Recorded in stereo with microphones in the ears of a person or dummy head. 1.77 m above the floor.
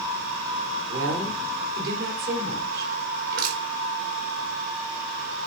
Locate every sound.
0.9 s a woman speaking: 65° right (ahead or behind), 5 m
3.3 s crushing: 65° right (ahead or behind), 4.5 m